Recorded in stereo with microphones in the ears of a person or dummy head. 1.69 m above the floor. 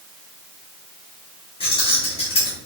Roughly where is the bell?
I don't hear a bell.